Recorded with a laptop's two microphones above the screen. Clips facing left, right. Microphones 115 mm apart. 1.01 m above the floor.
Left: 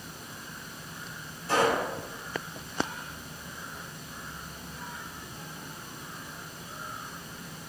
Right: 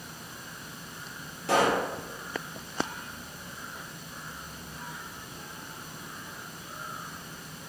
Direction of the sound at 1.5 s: 80° right.